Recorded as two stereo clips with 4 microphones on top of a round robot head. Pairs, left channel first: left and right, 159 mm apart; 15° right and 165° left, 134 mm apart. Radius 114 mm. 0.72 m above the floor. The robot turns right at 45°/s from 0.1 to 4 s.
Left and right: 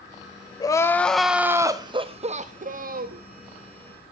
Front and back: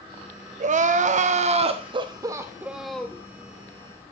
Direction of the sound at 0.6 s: 155° left.